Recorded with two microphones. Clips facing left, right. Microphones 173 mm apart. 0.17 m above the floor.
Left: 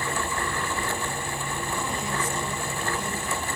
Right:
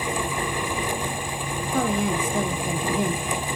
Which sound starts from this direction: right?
A woman speaking, at 1.7 s.